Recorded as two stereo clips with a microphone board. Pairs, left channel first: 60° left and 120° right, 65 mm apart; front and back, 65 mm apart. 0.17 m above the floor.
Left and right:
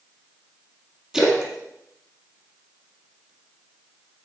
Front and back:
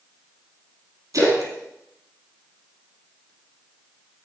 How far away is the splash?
About 3.5 m.